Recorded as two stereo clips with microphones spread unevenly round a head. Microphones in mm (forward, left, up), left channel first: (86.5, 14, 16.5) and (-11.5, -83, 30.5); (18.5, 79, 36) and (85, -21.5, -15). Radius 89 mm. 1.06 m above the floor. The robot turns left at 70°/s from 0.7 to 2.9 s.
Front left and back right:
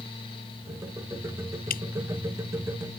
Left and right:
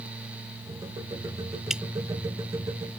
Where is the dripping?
30° left; by 1.8 s 25° left.